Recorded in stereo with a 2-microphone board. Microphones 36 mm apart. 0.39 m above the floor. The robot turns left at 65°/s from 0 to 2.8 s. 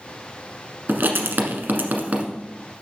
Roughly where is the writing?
Right.